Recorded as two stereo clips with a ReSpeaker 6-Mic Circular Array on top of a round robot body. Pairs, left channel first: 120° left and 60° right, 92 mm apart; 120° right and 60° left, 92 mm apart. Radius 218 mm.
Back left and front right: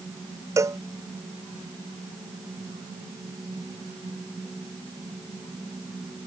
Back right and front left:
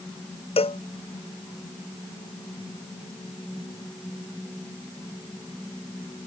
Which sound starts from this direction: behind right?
A cowbell, at 0.6 s.